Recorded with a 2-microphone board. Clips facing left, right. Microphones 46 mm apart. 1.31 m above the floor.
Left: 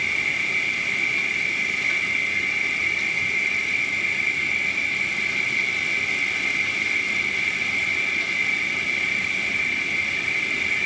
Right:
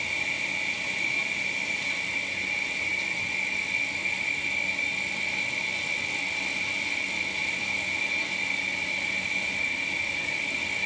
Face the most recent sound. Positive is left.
turn(degrees=70)  # may be behind; listen again after turning